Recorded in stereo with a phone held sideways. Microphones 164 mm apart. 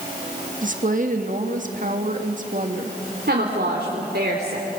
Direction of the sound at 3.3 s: 85° right.